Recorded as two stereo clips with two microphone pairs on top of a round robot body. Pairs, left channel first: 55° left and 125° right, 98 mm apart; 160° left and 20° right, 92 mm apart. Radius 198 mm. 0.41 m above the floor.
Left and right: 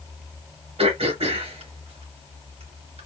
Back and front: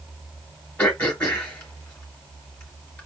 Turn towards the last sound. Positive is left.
turn(degrees=-125)